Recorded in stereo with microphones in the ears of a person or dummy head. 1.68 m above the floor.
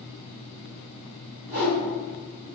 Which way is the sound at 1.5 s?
35° right (ahead or behind).